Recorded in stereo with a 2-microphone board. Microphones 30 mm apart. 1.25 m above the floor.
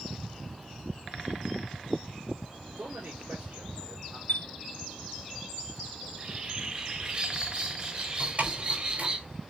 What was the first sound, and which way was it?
A man speaking, 80° right.